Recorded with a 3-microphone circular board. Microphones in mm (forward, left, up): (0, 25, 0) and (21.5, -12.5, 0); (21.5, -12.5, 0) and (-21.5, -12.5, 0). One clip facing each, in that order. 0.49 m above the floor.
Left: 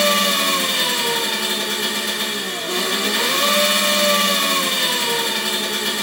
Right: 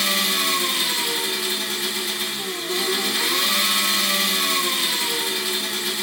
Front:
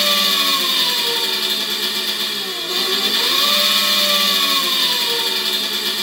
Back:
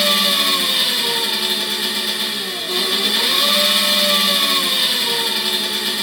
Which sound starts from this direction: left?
An engine running, at 0.0 s.